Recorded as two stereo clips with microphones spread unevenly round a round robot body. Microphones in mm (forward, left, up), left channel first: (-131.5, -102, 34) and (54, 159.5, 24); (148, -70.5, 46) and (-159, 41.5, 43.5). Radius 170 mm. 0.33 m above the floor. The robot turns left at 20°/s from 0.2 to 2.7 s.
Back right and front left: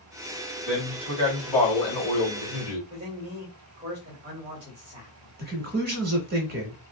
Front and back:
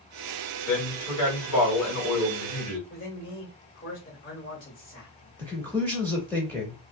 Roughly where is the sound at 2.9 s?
Ahead.